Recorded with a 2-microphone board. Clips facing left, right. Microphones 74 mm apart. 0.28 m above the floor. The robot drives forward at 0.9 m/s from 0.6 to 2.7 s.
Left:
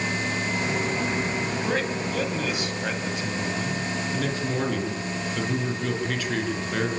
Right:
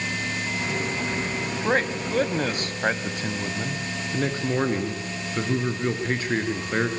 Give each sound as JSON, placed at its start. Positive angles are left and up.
{"t": 1.6, "sound": "a man speaking", "side_deg": -40, "distance_m": 1.9}
{"t": 4.1, "sound": "a man speaking", "side_deg": -35, "distance_m": 4.5}